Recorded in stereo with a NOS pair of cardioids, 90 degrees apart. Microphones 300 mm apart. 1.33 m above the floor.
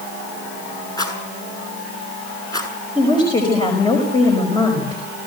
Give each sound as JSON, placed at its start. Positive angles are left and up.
{"t": 1.0, "sound": "a rattle", "azimuth_deg": 15, "distance_m": 6.5}
{"t": 3.0, "sound": "a woman speaking", "azimuth_deg": 15, "distance_m": 5.5}